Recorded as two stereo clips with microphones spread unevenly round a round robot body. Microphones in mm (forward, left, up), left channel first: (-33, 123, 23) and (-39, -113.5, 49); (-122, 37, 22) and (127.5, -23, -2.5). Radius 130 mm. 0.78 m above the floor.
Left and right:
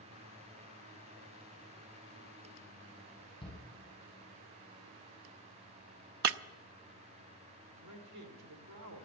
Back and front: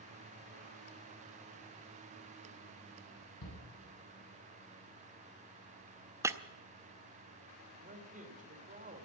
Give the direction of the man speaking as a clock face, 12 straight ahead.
2 o'clock.